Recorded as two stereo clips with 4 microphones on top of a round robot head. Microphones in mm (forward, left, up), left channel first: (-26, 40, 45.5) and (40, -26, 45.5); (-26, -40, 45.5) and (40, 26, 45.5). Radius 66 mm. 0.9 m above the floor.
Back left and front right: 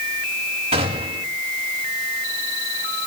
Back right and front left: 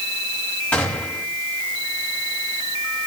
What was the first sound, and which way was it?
A gunshot, 60° right.